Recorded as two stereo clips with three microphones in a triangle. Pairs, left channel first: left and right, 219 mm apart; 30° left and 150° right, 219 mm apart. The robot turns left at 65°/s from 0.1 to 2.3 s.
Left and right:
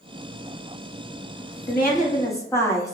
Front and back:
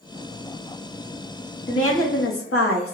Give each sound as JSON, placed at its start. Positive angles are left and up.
{"t": 1.7, "sound": "a woman speaking", "azimuth_deg": 55, "distance_m": 0.8}